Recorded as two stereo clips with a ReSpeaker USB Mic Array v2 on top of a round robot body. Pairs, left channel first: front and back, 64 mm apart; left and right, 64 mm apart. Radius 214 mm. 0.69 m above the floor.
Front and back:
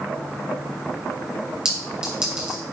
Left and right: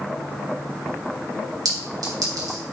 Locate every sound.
1.6 s a clink: 100° right, 3.5 m